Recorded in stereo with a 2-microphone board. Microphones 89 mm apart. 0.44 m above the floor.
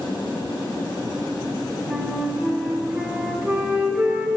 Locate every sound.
1.9 s a flute: 15° right (ahead or behind), 0.6 m